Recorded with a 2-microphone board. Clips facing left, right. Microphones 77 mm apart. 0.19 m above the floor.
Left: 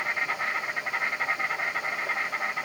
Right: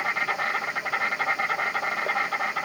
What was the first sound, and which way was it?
An insect, 80° right.